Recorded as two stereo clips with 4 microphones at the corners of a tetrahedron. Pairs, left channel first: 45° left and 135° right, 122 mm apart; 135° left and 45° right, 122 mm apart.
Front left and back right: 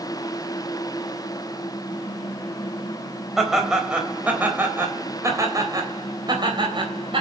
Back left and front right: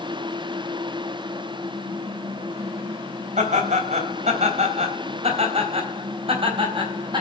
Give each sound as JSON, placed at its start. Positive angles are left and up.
{"t": 3.4, "sound": "laughter", "azimuth_deg": -45, "distance_m": 3.5}